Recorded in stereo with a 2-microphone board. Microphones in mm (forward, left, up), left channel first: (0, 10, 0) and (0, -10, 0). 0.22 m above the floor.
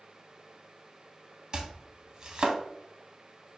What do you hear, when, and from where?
1.5 s chopping: 40° right (ahead or behind), 0.7 m